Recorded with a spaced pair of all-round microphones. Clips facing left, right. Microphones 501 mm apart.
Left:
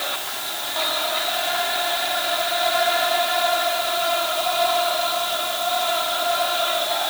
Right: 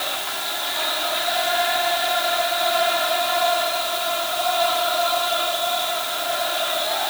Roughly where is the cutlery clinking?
I don't hear cutlery clinking.